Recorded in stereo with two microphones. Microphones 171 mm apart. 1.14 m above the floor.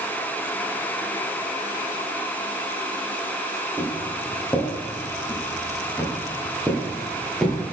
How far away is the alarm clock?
No alarm clock in this recording.